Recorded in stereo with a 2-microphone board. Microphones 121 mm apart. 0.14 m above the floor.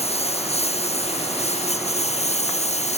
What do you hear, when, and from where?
0.0 s a lawn mower: 60° left (ahead or behind); by 3.0 s 65° left (ahead or behind)